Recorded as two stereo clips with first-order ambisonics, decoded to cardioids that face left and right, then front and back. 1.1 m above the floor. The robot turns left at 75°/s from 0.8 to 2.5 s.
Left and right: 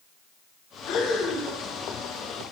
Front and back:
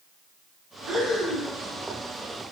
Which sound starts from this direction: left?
Breathing, at 0.9 s.